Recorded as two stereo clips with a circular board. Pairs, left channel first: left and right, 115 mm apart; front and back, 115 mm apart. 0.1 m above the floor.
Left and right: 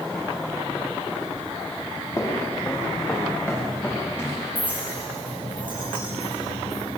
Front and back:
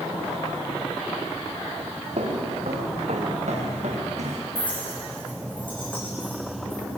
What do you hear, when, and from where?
2.2 s footsteps: 155° left, 5 m; by 4.5 s 165° left, 7 m
4.5 s a clink: 45° right, 6.5 m